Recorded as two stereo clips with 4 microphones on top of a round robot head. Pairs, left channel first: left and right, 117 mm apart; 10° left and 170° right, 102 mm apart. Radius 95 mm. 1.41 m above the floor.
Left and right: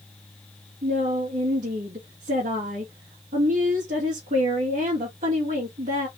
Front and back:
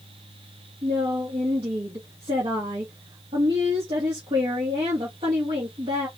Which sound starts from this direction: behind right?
A woman speaking, at 0.8 s.